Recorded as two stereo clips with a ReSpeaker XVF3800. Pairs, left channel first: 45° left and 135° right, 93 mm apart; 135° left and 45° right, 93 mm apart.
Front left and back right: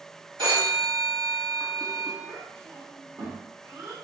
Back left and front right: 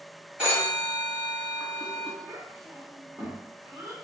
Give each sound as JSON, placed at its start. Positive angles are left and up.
{"t": 0.4, "sound": "a phone ringing", "azimuth_deg": -115, "distance_m": 1.7}
{"t": 2.2, "sound": "a child speaking", "azimuth_deg": -85, "distance_m": 1.0}